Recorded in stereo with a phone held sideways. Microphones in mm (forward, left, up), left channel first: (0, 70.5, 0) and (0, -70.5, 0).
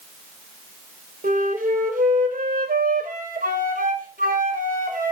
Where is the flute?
80° right, 3.5 m.